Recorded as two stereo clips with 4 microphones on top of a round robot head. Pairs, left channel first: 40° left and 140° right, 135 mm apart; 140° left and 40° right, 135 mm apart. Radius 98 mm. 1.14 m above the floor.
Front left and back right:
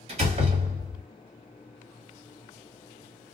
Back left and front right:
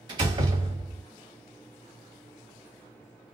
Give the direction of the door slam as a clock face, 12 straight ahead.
3 o'clock.